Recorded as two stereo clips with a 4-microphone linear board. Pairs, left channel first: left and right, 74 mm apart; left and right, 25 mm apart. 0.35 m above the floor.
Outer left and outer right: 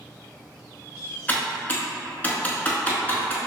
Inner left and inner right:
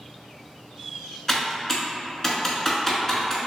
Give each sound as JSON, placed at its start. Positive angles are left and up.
{"t": 1.3, "sound": "typing on a keyboard", "side_deg": 25, "distance_m": 0.7}